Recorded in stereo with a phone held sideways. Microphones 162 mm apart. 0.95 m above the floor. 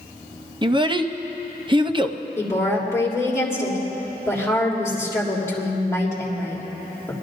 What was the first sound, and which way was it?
A child speaking, 30° right (ahead or behind).